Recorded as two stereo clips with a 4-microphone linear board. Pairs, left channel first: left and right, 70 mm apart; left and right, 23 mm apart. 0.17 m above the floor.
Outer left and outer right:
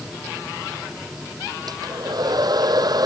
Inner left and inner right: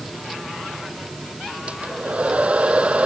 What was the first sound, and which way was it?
A hair dryer, 75° right (ahead or behind).